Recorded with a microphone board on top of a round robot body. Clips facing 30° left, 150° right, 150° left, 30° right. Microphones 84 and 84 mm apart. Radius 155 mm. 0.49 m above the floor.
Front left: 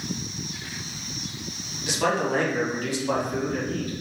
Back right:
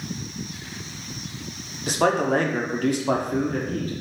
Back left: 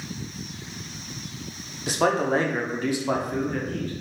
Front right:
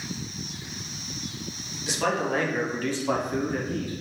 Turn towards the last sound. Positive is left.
turn(degrees=-105)